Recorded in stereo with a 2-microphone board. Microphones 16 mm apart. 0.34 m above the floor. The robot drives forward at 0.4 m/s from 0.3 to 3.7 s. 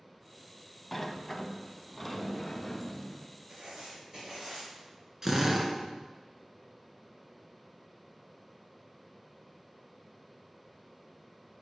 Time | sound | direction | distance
0.9 | a sliding door | 10° left (ahead or behind) | 0.8 m
3.5 | writing | 45° right (ahead or behind) | 5 m
5.2 | a drill | 20° right (ahead or behind) | 1.7 m